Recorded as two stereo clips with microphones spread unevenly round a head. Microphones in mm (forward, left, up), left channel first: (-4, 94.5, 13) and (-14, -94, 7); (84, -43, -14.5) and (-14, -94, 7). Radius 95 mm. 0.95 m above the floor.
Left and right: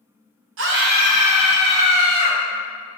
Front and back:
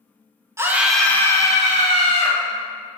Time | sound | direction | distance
0.6 | a scream | 85° right | 0.8 m